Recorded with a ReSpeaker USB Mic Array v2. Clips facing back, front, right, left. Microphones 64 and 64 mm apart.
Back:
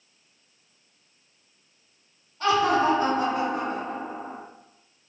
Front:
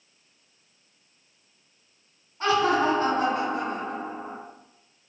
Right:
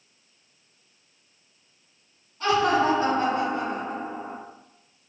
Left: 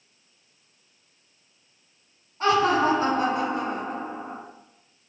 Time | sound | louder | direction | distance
2.4 | laughter | back 1 dB, left 1 dB | 55° left | 1.4 m